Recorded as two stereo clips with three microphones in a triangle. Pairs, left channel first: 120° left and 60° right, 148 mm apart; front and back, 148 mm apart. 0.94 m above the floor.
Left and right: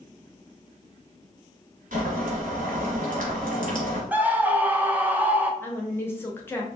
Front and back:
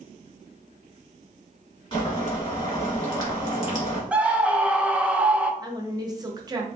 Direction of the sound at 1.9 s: 50° right.